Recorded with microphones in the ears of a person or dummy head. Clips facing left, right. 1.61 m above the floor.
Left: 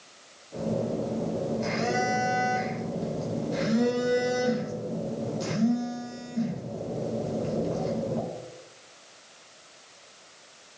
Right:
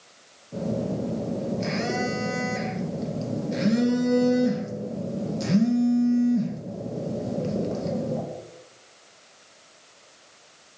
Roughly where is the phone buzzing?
Right.